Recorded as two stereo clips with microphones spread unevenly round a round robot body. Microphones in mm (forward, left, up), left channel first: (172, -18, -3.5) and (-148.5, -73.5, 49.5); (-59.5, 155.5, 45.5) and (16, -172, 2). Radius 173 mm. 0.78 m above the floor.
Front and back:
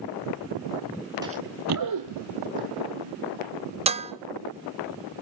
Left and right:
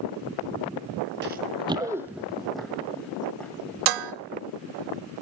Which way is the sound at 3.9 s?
95° right.